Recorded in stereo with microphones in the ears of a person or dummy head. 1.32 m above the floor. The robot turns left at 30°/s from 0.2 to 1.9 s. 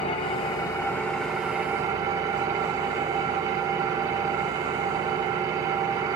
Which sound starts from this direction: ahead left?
An engine running, at 0.0 s.